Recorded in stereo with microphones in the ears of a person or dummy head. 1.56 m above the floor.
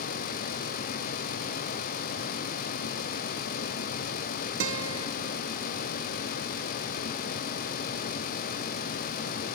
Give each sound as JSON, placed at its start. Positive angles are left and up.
{"t": 4.6, "sound": "a guitar", "side_deg": -80, "distance_m": 0.9}